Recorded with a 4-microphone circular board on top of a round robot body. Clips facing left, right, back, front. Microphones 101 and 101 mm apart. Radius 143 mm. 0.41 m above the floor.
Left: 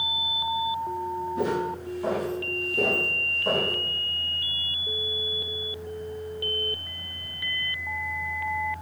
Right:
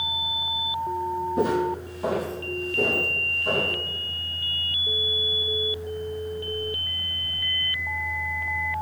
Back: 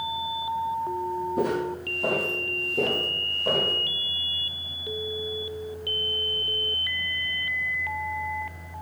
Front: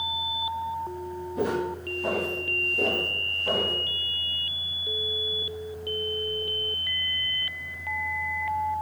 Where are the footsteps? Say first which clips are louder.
Right 4 dB, front 1 dB; 140° right, 1.1 m; by 3.7 s 140° left, 1.4 m.